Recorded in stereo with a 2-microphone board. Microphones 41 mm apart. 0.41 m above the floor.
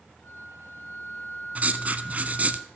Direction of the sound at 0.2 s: 70° left (ahead or behind).